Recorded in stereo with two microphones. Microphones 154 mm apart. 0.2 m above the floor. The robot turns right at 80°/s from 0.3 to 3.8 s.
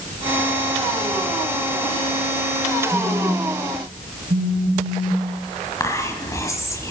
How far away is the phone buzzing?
About 2.5 m.